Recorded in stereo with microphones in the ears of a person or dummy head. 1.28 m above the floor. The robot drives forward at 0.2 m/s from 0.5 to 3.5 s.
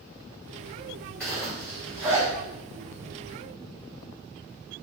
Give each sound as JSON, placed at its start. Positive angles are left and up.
{"t": 1.2, "sound": "a zipper", "side_deg": 5, "distance_m": 1.4}